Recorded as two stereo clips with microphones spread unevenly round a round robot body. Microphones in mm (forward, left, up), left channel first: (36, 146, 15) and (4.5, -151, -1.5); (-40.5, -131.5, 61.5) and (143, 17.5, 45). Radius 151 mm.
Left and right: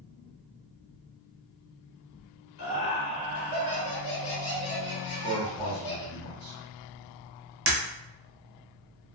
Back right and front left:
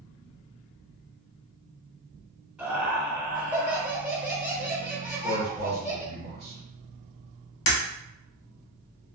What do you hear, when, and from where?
2.6 s laughter: 120° left, 1.6 m
5.0 s a man speaking: 55° left, 1.4 m
7.7 s breaking glass: 145° right, 0.8 m